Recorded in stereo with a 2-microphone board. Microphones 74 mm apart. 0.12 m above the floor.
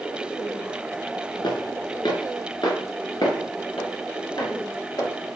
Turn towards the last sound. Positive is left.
turn(degrees=55)  # may be behind; listen again after turning